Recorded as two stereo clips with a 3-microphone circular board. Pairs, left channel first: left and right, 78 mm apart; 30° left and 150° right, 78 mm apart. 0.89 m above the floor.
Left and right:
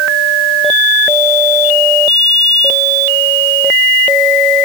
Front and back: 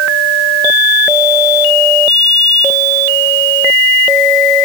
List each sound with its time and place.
Only background noise.